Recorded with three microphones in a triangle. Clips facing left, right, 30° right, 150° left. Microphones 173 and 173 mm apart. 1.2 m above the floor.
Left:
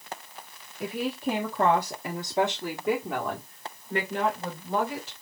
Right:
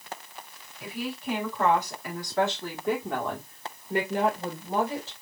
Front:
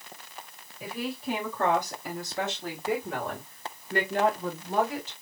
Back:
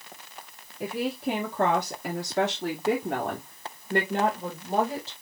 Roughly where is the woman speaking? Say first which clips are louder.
Left 5 dB, back 5 dB; behind left.